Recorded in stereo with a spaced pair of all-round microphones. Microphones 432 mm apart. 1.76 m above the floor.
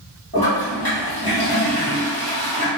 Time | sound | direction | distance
0.3 | a toilet flushing | 55° right (ahead or behind) | 1.2 m